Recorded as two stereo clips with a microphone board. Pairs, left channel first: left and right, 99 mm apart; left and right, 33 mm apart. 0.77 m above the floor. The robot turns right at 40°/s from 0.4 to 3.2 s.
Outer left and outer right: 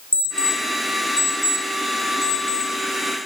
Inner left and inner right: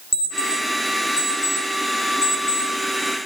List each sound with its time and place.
0.1 s an alarm clock: 20° right (ahead or behind), 3.5 m; by 2.7 s 70° right (ahead or behind), 3.5 m